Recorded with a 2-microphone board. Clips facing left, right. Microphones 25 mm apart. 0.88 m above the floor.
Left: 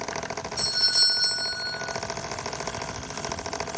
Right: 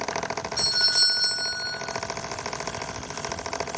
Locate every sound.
0.6 s a doorbell: 65° right (ahead or behind), 2 m